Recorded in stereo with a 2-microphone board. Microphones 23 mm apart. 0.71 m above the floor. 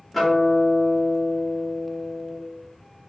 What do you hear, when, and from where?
0.1 s a guitar: centre (ahead or behind), 1.2 m